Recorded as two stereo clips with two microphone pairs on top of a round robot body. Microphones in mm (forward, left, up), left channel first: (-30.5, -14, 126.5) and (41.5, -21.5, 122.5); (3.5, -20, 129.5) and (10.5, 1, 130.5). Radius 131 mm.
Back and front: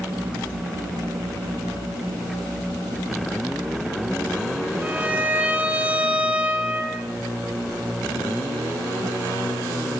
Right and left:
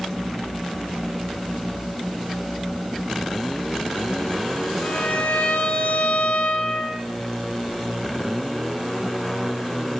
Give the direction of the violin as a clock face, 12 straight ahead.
3 o'clock.